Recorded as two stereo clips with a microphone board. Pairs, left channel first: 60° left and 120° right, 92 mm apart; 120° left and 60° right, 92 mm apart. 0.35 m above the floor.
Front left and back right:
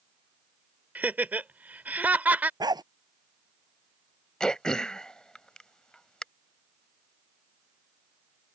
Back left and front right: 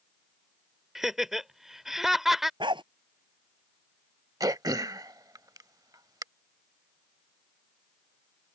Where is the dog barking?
80° right.